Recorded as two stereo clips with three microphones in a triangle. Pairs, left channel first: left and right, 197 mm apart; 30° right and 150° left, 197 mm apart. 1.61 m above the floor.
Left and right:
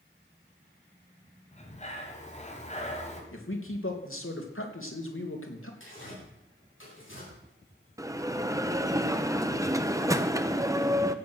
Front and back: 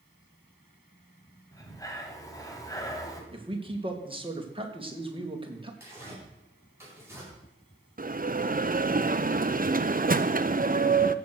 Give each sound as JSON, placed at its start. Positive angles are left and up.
{"t": 1.5, "sound": "breathing", "azimuth_deg": 40, "distance_m": 2.5}
{"t": 3.3, "sound": "a man speaking", "azimuth_deg": 85, "distance_m": 2.5}
{"t": 5.8, "sound": "tearing paper", "azimuth_deg": 70, "distance_m": 9.5}
{"t": 8.0, "sound": "a bell", "azimuth_deg": -165, "distance_m": 0.7}